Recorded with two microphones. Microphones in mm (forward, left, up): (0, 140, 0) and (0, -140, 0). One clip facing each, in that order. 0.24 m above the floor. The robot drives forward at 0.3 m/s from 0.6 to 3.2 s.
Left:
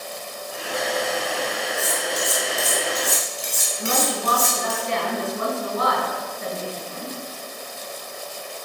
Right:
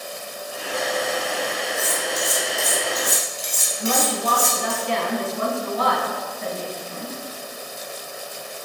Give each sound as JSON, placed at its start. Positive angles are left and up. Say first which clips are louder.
{"t": 1.8, "sound": "cutlery clinking", "louder": "even", "side_deg": 70, "distance_m": 1.9}
{"t": 3.8, "sound": "a woman speaking", "louder": "right 2 dB", "side_deg": 45, "distance_m": 1.6}